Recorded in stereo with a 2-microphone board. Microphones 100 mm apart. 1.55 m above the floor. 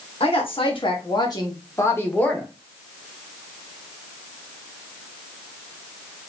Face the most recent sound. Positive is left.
turn(degrees=10)  # may be behind; listen again after turning